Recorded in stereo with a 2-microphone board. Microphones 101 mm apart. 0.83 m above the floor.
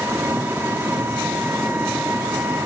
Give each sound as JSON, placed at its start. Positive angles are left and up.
{"t": 0.0, "sound": "an engine running", "side_deg": -25, "distance_m": 1.4}